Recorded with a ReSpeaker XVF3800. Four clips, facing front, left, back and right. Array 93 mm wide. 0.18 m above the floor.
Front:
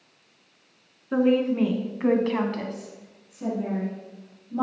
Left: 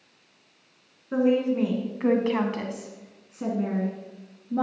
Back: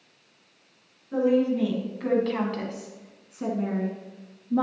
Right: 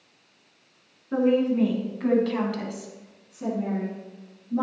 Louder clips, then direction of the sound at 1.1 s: Right 1 dB, front 1 dB; 5° left.